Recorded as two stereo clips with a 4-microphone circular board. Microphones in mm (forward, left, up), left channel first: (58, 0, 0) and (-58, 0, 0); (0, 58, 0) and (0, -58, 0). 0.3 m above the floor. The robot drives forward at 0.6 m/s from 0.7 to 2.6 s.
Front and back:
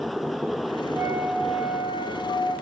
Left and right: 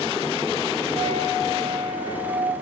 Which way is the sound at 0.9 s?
115° right.